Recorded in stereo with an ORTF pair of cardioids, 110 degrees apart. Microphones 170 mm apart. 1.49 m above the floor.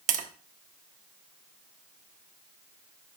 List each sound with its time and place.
0.1 s tapping: 50° right, 1.2 m